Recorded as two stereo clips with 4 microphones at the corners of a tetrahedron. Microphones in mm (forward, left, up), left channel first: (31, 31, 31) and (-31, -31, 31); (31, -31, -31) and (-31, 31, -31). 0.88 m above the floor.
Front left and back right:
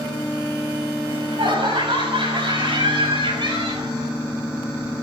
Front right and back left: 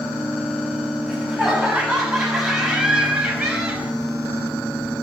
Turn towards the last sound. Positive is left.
turn(degrees=-140)